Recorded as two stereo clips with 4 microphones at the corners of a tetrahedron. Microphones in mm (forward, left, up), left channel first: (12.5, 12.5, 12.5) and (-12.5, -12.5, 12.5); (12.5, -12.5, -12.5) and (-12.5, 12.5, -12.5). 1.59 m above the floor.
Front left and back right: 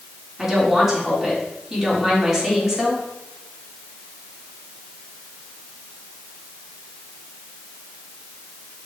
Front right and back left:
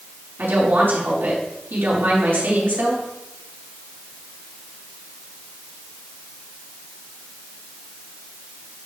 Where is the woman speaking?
145° left, 4 m.